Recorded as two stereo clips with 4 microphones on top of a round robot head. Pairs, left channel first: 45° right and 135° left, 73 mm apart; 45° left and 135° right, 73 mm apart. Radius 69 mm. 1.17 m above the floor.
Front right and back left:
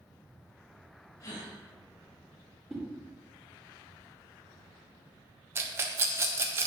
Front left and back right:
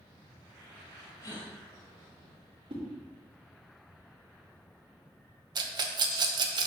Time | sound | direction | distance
1.2 | a gasp | straight ahead | 3.5 m
2.7 | a whoosh | 135° right | 2.5 m
5.5 | a rattle | 165° right | 0.9 m